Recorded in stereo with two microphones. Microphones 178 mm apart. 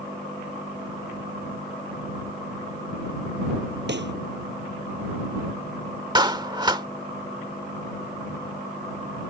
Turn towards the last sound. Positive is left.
turn(degrees=-25)  # may be behind; listen again after turning